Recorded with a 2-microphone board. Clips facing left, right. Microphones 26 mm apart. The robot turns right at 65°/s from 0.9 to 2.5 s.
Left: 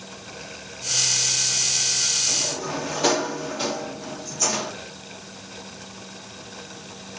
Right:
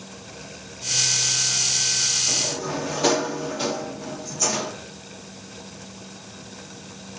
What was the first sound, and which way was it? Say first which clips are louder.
A sliding door: right 1 dB; 10° right (ahead or behind).